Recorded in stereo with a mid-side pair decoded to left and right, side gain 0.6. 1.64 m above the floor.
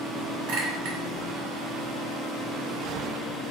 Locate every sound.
0.5 s a clink: 70° right, 1.8 m